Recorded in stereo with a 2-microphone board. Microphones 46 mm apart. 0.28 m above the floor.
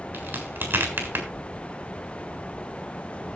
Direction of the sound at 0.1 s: 55° right (ahead or behind).